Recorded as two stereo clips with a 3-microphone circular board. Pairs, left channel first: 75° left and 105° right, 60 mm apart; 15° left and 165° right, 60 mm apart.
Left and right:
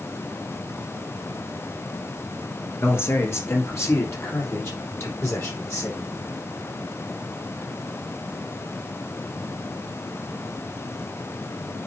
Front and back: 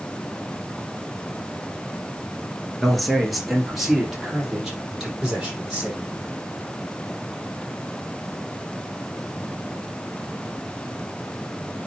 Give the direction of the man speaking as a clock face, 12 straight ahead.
9 o'clock.